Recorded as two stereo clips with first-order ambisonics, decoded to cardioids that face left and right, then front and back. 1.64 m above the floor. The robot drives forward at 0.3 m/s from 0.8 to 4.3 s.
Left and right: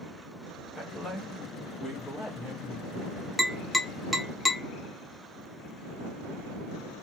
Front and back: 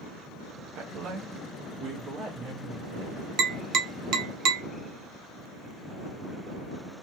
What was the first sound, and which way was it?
A woman speaking, straight behind.